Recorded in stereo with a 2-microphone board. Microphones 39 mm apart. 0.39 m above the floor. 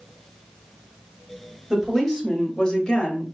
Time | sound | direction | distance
1.7 | a woman speaking | 5° left (ahead or behind) | 1.7 m